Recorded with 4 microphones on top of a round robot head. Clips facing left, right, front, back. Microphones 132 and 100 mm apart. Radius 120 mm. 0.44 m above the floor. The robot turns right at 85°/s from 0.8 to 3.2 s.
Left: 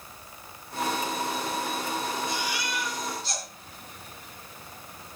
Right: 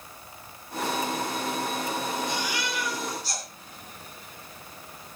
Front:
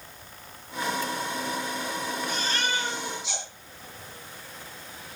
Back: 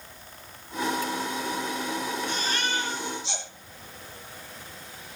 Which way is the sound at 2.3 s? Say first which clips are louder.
Right 1 dB, even; 90° right.